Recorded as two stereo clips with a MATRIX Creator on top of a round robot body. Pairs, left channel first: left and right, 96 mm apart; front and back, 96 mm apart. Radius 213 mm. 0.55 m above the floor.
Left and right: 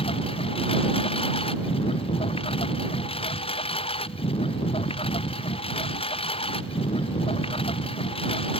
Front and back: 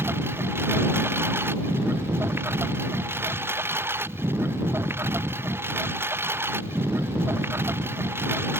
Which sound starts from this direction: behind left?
A lawn mower, at 0.0 s.